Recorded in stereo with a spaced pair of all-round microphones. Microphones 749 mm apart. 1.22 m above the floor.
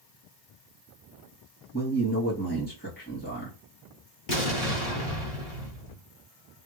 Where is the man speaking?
15° left (ahead or behind), 1.9 m.